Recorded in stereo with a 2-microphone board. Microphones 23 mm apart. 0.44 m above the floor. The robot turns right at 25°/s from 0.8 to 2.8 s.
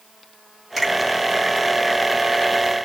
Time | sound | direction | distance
0.8 | a finger snap | 5° left (ahead or behind) | 3.5 m